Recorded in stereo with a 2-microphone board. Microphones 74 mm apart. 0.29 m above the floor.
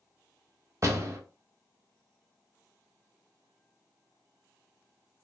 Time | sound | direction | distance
0.8 | a door slam | 45° right (ahead or behind) | 0.8 m